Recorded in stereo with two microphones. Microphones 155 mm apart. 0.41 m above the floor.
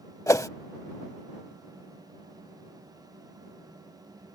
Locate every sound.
0.3 s a whoosh: 20° left (ahead or behind)